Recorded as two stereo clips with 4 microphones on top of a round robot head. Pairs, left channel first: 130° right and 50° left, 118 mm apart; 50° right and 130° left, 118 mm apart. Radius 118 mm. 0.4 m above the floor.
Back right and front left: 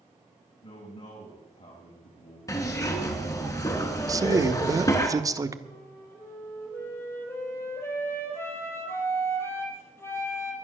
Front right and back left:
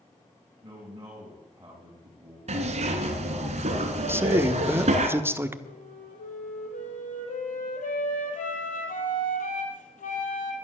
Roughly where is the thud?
I don't hear a thud.